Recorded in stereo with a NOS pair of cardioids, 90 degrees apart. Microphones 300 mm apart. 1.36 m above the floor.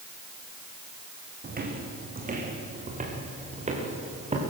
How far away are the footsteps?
About 4.5 m.